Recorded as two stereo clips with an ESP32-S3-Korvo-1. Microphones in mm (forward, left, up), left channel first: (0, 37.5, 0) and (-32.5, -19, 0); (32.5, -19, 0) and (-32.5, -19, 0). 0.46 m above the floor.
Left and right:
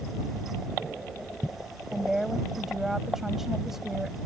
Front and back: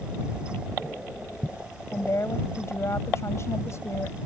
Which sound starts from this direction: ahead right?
A woman speaking, at 1.9 s.